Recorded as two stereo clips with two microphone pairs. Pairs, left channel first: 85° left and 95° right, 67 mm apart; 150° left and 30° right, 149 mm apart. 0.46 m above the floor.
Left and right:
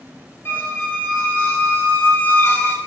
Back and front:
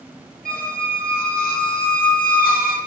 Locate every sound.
0.5 s a squeak: 140° left, 1.4 m